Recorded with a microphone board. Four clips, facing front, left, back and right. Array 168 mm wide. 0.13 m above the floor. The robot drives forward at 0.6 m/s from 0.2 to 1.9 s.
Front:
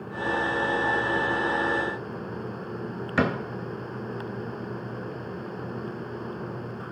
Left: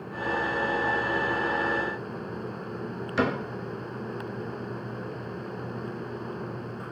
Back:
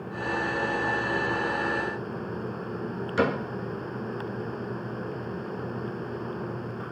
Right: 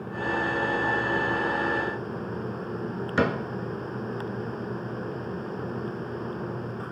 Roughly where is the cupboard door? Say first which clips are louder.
Right 1 dB, even; ahead right.